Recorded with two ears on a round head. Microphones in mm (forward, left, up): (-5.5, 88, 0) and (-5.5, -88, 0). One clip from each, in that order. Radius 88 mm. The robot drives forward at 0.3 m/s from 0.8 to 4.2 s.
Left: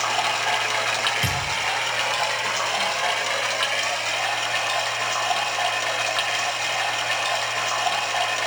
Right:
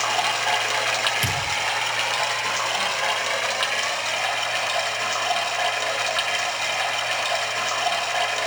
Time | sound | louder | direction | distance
0.0 | running water | even | 10° right (ahead or behind) | 0.8 m
1.2 | a thud | even | 45° right (ahead or behind) | 8 m